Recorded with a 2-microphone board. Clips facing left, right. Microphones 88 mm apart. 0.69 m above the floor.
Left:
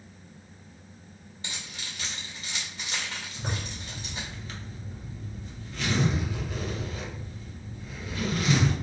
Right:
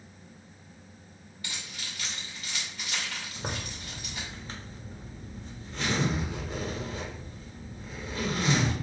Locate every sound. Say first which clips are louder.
1.4 s keys jangling: left 1 dB; 25° left (ahead or behind), 1.8 m
3.4 s a zipper: left 1 dB; 30° right (ahead or behind), 1.1 m